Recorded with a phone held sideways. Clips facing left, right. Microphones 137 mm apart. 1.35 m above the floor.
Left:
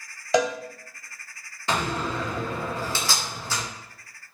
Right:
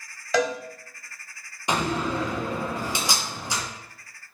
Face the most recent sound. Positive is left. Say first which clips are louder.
# right 2 dB
turn(degrees=-15)  # may be behind; listen again after turning